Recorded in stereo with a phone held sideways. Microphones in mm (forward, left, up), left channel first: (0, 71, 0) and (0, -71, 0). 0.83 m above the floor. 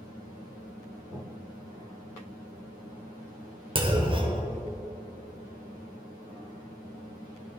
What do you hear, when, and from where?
3.8 s a clunk: 40° right (ahead or behind), 1.0 m